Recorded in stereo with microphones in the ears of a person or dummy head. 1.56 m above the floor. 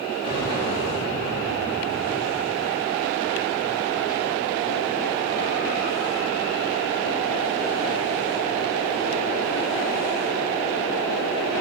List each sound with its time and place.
0.2 s an explosion: 30° right (ahead or behind), 4 m